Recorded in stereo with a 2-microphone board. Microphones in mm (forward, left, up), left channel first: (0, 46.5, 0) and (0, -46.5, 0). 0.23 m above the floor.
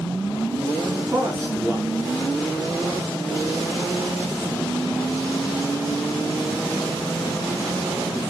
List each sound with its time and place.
1.1 s a man speaking: 25° right (ahead or behind), 3.5 m